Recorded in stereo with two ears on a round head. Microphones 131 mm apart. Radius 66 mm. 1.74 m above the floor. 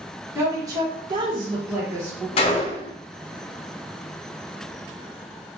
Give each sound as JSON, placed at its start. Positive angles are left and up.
{"t": 0.3, "sound": "a woman speaking", "side_deg": -20, "distance_m": 1.2}
{"t": 2.4, "sound": "a gunshot", "side_deg": 40, "distance_m": 0.6}